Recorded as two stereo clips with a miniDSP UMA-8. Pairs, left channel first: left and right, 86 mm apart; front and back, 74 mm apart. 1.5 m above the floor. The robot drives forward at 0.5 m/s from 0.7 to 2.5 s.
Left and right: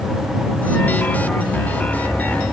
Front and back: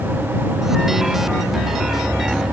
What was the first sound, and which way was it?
Only background noise.